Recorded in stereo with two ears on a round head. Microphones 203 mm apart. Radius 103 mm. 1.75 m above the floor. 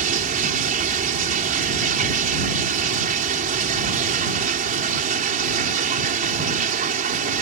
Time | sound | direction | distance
0.0 | running water | 40° right (ahead or behind) | ?